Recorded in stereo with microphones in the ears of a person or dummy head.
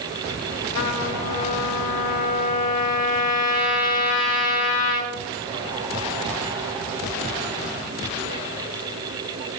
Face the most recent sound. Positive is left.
turn(degrees=45)  # may be behind; listen again after turning